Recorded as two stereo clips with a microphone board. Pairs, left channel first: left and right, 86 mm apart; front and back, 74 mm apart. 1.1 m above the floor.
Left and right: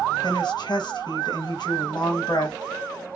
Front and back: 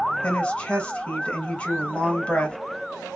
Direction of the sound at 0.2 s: 70° left.